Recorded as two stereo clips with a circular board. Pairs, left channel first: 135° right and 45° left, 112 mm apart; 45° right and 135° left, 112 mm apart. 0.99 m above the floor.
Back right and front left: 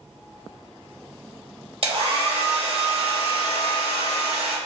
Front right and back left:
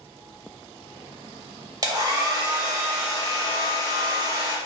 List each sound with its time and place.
1.8 s a hair dryer: 80° left, 0.6 m